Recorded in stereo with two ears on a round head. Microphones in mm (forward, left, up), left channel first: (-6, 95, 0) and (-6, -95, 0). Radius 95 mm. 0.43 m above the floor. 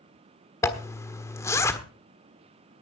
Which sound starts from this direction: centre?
A zipper, at 0.6 s.